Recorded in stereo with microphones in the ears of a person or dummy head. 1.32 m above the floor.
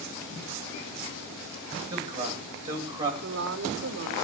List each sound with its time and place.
1.9 s a man speaking: 20° right (ahead or behind), 9 m
3.2 s a woman speaking: 65° right (ahead or behind), 2.5 m